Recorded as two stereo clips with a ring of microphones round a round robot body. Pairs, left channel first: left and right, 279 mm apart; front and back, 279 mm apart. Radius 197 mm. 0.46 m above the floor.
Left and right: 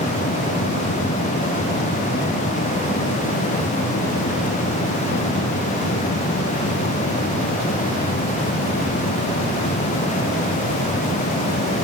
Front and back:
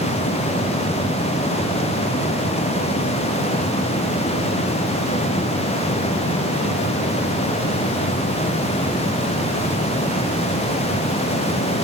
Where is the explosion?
No explosion in this recording.